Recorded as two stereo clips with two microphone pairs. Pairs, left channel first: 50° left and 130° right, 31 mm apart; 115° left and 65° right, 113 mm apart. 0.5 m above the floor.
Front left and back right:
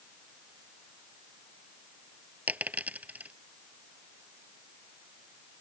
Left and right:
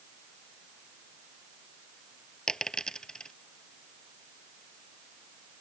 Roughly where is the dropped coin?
Behind.